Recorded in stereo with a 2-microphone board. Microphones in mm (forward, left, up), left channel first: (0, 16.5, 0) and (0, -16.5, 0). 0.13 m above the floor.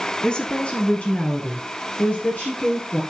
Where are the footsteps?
I don't hear footsteps.